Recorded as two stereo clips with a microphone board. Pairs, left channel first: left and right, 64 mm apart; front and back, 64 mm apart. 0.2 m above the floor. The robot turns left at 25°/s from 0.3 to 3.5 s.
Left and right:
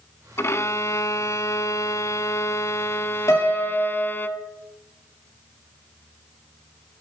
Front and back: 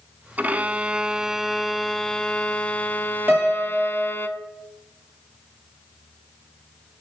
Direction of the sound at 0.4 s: 125° left.